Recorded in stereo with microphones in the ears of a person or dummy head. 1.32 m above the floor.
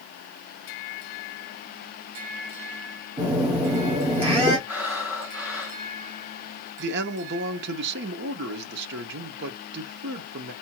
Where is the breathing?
5° right (ahead or behind), 1.6 m.